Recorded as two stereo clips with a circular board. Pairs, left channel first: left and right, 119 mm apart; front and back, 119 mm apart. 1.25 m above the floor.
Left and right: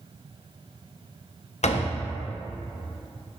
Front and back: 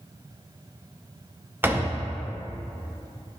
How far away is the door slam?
About 0.6 m.